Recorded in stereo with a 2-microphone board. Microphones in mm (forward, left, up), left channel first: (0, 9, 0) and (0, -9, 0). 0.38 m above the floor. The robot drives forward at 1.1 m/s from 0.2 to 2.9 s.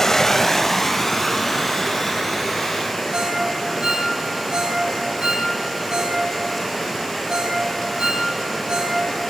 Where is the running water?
20° left (ahead or behind), 0.8 m; by 9.3 s 5° left (ahead or behind), 3.5 m.